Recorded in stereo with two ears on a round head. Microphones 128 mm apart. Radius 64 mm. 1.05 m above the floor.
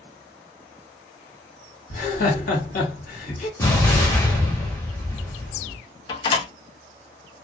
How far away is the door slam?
About 0.5 m.